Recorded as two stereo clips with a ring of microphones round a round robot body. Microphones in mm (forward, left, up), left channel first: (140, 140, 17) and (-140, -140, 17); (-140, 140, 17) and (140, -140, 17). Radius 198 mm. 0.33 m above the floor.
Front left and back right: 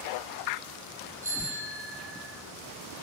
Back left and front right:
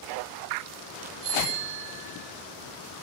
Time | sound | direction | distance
1.2 | a bicycle bell | 50° right | 7 m